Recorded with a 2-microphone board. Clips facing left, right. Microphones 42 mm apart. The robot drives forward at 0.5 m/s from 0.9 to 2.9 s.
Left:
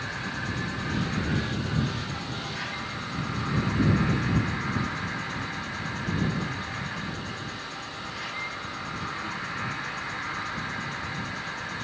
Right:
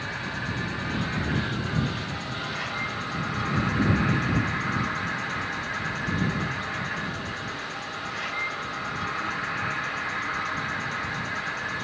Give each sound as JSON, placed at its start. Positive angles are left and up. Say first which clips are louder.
{"t": 0.0, "sound": "an insect", "louder": "right 1 dB", "side_deg": -40, "distance_m": 1.7}